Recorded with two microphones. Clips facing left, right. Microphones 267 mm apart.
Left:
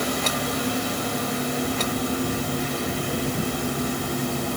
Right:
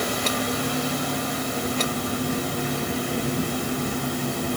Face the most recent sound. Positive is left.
No sound to turn to.